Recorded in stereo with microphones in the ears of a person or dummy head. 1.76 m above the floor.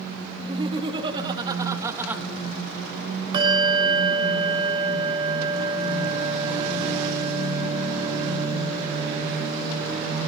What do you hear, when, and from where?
0.4 s laughter: 30° right (ahead or behind), 3.5 m; by 2.2 s 5° right (ahead or behind), 2.5 m
3.3 s a bell: 25° right (ahead or behind), 6 m